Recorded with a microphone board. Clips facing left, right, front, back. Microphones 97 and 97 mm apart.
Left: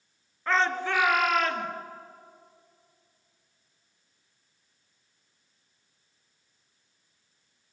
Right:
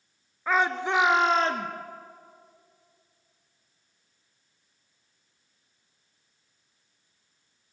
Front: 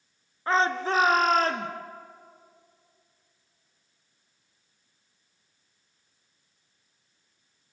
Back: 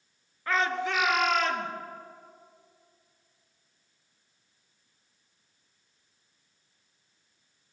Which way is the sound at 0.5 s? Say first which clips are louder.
Right 1 dB, front 4 dB; 15° right.